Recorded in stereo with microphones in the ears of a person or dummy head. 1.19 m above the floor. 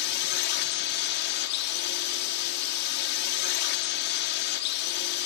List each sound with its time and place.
0.0 s a drone: 60° left (ahead or behind)